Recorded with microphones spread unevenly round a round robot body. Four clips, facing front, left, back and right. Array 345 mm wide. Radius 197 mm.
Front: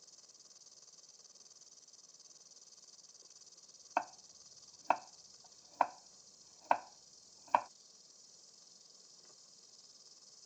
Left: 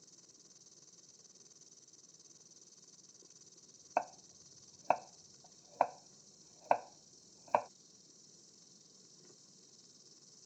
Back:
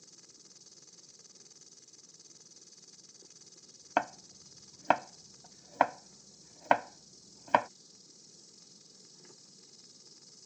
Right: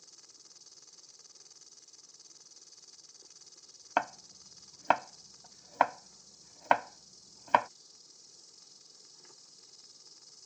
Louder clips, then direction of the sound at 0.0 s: Right 2 dB, back 8 dB; 165° left.